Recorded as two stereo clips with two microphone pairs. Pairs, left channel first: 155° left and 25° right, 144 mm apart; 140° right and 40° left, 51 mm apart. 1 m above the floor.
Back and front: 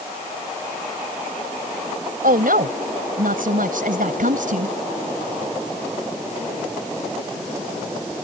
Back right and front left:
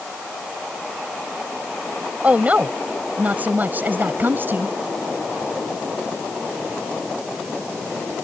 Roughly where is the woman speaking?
Ahead.